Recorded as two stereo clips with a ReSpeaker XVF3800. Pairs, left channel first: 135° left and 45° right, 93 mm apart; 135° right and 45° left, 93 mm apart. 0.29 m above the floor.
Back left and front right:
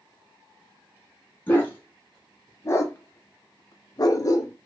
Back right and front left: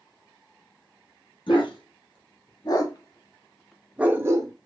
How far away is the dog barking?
About 1.3 m.